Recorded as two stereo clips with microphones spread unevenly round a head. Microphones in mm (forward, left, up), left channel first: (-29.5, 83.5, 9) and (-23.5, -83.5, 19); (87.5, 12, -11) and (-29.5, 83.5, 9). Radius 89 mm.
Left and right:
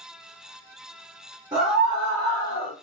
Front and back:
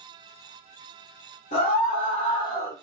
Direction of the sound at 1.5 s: 20° right.